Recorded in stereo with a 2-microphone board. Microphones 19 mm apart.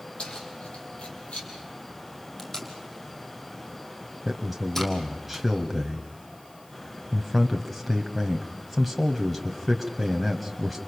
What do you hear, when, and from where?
0.2 s keys jangling: 80° left, 6.5 m; by 1.5 s 75° left (ahead or behind), 6 m
2.4 s tape being pulled: 15° left (ahead or behind), 3.5 m
4.2 s a man speaking: centre (ahead or behind), 1.5 m